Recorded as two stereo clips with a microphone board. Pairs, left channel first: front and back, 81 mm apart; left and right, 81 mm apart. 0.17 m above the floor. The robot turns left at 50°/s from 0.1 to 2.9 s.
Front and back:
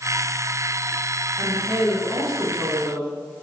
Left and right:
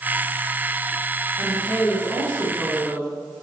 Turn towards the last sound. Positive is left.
turn(degrees=45)